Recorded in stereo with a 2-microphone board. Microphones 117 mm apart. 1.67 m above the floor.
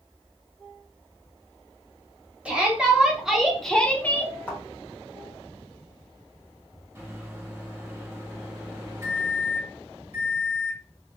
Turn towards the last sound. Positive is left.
turn(degrees=-25)  # may be behind; listen again after turning